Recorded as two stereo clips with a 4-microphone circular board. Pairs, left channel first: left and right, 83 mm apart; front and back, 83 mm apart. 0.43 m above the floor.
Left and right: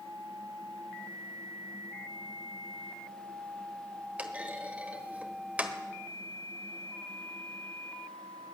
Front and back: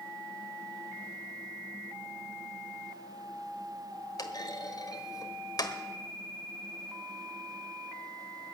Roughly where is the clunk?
Ahead.